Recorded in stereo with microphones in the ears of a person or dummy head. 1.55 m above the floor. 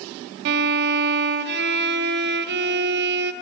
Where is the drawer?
I don't hear a drawer.